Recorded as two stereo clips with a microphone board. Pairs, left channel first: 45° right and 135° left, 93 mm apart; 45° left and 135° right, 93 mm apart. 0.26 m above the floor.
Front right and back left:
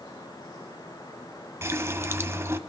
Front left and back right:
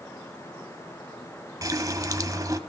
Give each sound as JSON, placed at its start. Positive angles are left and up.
{"t": 1.6, "sound": "a running tap", "azimuth_deg": -175, "distance_m": 1.1}